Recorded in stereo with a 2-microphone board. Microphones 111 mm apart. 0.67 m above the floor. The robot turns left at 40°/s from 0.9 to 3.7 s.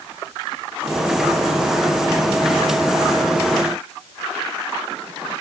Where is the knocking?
I don't hear knocking.